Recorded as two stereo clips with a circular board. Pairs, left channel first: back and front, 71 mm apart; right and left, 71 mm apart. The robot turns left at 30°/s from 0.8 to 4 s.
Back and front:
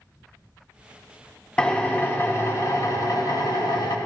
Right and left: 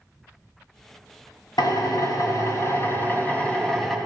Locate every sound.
1.6 s a drill: 105° right, 2 m; by 4.0 s 175° right, 2 m